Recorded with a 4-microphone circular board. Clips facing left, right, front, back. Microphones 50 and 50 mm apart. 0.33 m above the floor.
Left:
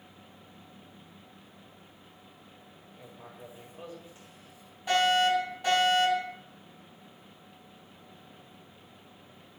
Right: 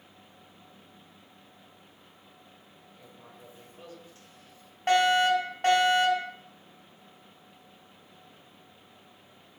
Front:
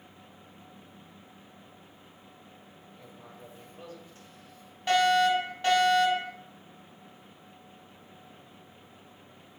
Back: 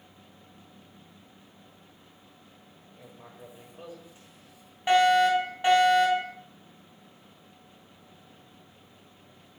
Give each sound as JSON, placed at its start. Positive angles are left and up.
{"t": 2.9, "sound": "writing", "azimuth_deg": 130, "distance_m": 1.6}
{"t": 4.9, "sound": "a fire alarm", "azimuth_deg": -110, "distance_m": 4.5}